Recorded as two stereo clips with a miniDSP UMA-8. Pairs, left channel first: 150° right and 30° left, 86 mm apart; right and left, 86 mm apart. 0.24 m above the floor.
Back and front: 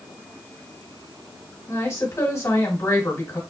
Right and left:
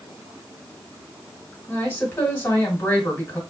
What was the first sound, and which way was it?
A woman speaking, 135° right.